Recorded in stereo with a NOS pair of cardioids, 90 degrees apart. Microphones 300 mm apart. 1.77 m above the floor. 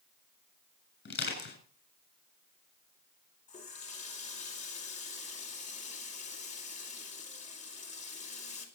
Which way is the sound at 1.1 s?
35° left.